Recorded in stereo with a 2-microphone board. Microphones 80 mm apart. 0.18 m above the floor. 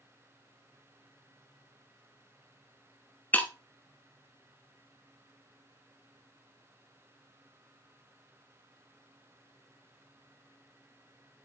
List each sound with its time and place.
3.3 s breaking glass: 20° left (ahead or behind), 1.0 m